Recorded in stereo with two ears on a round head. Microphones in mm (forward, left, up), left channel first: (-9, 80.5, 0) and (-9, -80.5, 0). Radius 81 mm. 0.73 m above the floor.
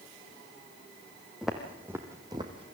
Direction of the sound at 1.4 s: Centre (ahead or behind).